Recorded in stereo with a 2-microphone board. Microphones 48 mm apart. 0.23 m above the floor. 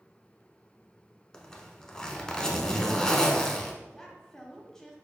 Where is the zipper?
15° left (ahead or behind), 0.7 m.